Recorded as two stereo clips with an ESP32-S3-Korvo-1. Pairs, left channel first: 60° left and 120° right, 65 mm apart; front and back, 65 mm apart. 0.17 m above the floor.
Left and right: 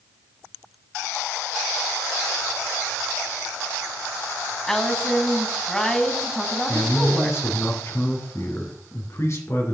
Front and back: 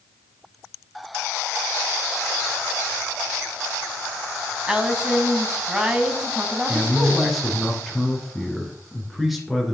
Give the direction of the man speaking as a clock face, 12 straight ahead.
9 o'clock.